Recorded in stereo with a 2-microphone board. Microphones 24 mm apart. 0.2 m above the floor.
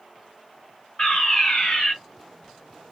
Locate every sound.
1.0 s a fire alarm: 30° left (ahead or behind), 3 m